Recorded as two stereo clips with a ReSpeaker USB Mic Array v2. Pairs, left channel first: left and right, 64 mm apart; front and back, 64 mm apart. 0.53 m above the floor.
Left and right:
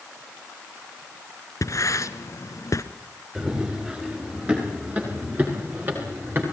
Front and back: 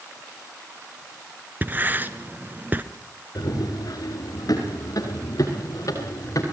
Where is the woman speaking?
No woman speaking in this recording.